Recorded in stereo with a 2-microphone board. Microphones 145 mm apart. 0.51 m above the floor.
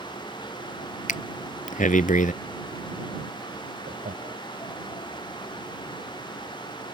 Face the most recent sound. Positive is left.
turn(degrees=-65)  # may be behind; listen again after turning